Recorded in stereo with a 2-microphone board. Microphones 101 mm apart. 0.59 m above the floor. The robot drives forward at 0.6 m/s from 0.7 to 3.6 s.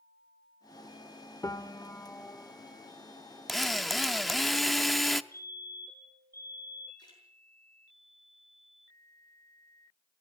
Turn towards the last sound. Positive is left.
turn(degrees=45)  # may be behind; listen again after turning